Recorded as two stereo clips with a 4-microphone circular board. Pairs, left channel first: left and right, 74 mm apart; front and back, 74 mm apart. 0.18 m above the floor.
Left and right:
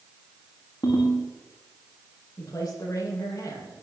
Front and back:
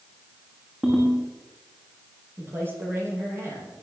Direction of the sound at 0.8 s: 110° left.